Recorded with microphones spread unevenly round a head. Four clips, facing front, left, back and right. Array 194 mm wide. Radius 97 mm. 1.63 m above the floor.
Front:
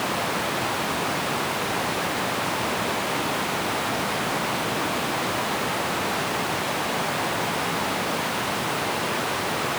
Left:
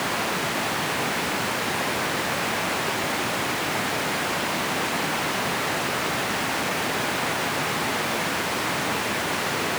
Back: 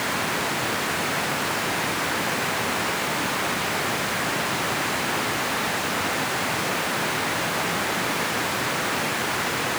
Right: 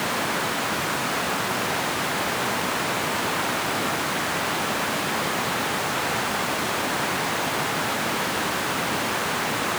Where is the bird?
I don't hear a bird.